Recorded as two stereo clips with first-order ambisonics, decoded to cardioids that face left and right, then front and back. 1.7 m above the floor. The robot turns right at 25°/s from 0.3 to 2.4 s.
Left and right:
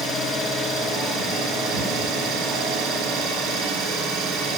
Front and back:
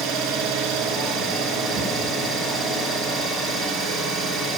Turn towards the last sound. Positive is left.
turn(degrees=-100)